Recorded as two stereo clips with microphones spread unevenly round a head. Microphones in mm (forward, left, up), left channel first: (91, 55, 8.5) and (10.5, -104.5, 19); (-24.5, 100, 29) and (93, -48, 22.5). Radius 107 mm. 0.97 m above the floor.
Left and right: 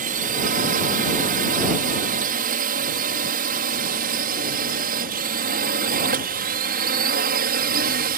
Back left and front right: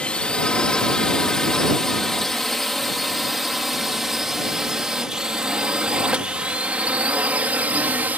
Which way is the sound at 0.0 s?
145° right.